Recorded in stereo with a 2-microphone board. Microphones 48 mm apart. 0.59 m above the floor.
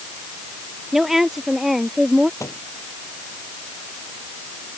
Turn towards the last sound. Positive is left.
turn(degrees=75)  # may be behind; listen again after turning